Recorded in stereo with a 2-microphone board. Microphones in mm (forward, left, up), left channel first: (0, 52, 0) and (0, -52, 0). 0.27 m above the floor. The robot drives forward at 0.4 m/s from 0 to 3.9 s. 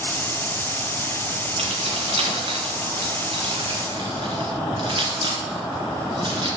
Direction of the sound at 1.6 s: 70° right (ahead or behind).